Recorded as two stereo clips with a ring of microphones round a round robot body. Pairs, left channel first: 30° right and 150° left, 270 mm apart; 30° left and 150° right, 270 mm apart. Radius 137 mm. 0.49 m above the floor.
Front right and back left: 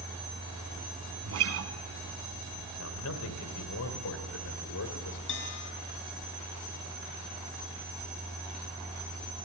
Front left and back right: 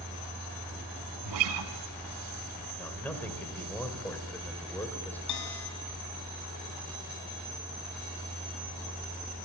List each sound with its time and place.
1.2 s a guitar: 170° right, 1.4 m
2.8 s a man speaking: 55° right, 2.5 m
5.3 s a bell: 15° left, 3 m